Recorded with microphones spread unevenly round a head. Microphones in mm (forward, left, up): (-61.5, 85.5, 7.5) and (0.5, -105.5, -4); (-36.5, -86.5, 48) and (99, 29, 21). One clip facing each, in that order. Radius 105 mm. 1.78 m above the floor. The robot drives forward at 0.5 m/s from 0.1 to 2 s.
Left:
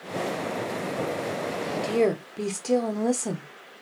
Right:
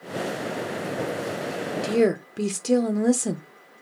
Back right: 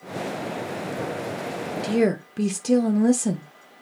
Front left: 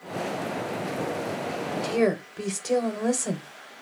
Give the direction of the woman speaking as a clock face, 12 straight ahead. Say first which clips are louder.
Right 3 dB, back right 3 dB; 4 o'clock.